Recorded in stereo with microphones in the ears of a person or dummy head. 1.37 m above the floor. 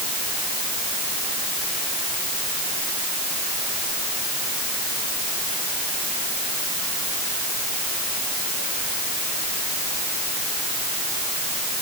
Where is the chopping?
No chopping in this recording.